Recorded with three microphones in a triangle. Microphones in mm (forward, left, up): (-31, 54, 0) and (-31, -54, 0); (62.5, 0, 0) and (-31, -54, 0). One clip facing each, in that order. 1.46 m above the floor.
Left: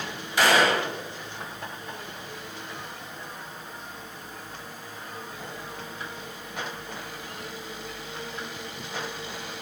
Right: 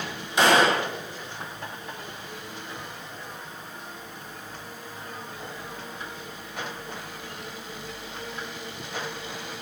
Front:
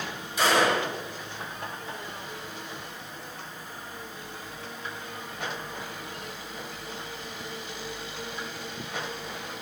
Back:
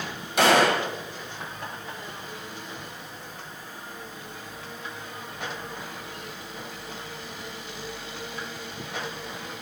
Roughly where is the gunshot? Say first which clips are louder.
Right 2 dB, back 3 dB; behind.